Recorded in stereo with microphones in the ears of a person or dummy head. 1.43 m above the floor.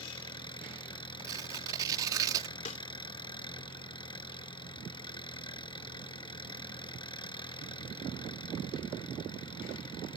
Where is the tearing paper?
25° right (ahead or behind).